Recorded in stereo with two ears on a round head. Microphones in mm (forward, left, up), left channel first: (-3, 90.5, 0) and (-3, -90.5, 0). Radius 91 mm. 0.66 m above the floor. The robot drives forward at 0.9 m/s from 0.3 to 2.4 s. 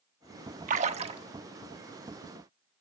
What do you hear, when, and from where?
0.7 s a splash: 35° right (ahead or behind), 0.9 m; by 1.2 s 25° right (ahead or behind), 1.2 m